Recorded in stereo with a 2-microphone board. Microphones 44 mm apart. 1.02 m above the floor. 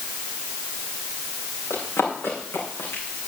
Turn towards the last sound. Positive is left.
turn(degrees=50)  # may be behind; listen again after turning